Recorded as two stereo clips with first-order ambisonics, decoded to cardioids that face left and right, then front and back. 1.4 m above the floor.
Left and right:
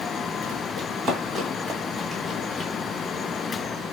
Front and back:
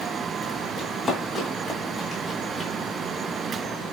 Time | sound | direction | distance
0.8 | running footsteps | 80° right | 1.6 m